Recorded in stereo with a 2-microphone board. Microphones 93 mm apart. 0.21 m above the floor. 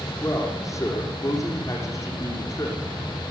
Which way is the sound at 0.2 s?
35° left (ahead or behind).